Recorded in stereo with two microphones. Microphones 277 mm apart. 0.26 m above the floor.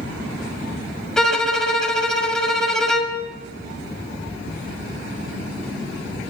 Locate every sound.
1.2 s a violin: centre (ahead or behind), 1.3 m